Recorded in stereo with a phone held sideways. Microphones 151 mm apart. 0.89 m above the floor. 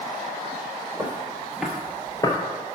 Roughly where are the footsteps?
Right.